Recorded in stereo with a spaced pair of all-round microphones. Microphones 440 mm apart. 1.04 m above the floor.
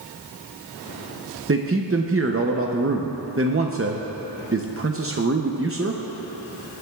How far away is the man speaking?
About 0.7 m.